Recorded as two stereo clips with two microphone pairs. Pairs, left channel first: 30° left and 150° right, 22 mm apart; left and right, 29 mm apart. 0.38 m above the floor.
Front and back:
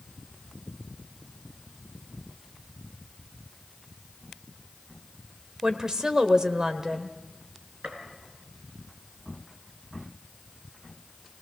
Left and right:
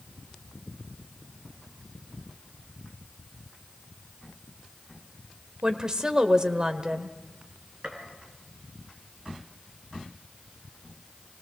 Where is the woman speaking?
130° right, 1.2 m.